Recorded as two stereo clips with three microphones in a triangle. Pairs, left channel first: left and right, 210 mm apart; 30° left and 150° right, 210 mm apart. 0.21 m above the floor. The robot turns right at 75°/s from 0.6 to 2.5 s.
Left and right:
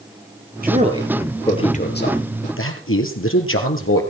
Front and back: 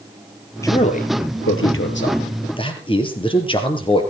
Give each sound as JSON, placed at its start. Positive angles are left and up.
{"t": 0.6, "sound": "a man speaking", "azimuth_deg": -45, "distance_m": 4.5}